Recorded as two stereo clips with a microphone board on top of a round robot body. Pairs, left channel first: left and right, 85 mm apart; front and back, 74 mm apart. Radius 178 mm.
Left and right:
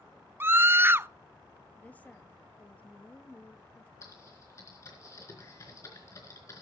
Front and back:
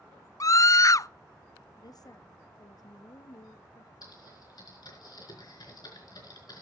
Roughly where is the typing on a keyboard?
Ahead left.